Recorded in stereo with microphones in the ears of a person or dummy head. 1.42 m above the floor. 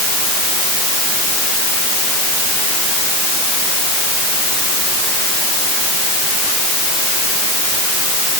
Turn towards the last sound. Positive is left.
No sound to turn to.